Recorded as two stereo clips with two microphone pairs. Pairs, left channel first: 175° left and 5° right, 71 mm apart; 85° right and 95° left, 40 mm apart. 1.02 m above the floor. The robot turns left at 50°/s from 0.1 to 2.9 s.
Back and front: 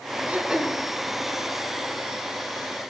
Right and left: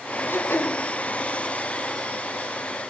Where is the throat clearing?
75° right, 1.0 m; by 0.8 s 100° right, 1.0 m.